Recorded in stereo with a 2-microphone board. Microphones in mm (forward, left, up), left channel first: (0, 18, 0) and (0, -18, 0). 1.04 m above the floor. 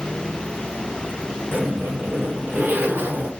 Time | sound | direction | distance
1.5 | a zipper | 70° right (ahead or behind) | 4 m